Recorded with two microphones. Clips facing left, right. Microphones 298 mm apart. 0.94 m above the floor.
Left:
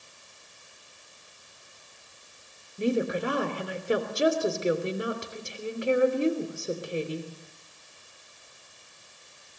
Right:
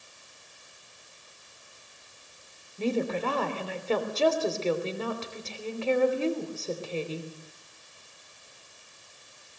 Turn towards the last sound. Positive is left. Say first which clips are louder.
# left 2 dB
turn(degrees=15)  # may be behind; listen again after turning